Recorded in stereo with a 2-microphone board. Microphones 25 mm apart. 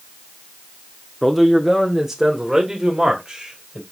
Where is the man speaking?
5° left (ahead or behind), 0.8 m; by 3.8 s 25° right (ahead or behind), 1.8 m.